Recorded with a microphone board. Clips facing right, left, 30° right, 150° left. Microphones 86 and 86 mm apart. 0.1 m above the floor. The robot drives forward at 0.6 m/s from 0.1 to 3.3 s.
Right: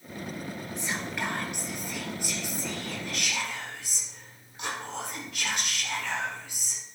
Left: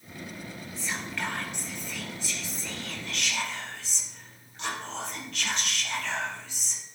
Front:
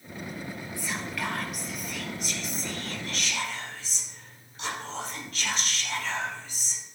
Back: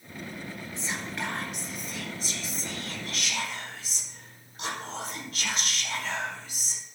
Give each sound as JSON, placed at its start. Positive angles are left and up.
{"t": 0.8, "sound": "whispering", "azimuth_deg": -155, "distance_m": 2.0}